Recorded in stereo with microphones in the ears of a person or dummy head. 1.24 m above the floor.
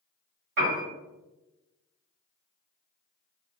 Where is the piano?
55° right (ahead or behind), 1.5 m.